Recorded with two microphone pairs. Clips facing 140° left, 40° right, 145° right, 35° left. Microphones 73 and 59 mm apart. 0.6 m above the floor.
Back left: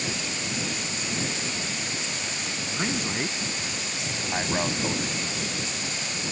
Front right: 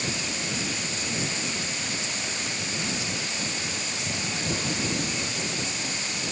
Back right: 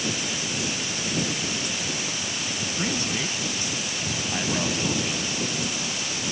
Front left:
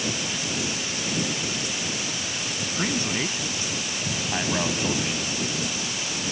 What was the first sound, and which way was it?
A man speaking, 105° left.